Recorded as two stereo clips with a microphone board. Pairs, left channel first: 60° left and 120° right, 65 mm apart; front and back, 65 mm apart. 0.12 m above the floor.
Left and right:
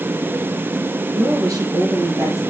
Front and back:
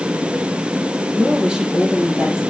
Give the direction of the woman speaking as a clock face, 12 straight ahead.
3 o'clock.